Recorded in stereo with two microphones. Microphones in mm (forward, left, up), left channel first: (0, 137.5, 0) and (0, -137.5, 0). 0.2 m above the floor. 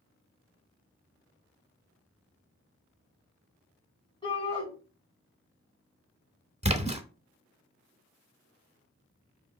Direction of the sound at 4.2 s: 15° left (ahead or behind).